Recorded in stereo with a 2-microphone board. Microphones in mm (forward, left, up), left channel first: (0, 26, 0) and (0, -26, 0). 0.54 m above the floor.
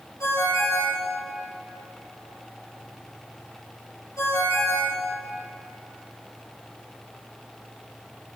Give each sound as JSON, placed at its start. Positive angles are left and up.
{"t": 0.2, "sound": "a ringtone", "side_deg": 90, "distance_m": 4.0}